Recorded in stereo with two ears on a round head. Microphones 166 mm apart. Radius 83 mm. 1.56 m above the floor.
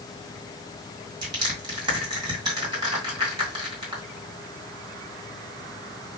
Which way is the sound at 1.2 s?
25° right (ahead or behind).